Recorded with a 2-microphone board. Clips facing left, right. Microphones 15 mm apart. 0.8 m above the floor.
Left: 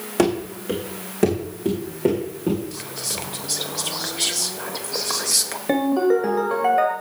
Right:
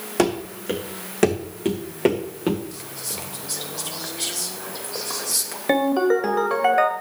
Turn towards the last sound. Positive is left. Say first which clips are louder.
# even
turn(degrees=-25)  # may be behind; listen again after turning